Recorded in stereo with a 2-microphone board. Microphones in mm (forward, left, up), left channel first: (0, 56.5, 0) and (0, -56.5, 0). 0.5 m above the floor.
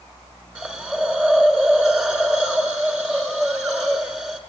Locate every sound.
0.6 s a hiss: 10° right (ahead or behind), 1.4 m